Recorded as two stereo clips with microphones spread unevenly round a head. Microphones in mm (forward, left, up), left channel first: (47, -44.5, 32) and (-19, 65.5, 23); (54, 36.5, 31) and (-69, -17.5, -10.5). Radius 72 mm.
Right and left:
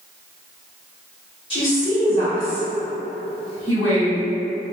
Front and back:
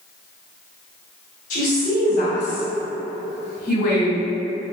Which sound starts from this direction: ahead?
A woman speaking, at 1.5 s.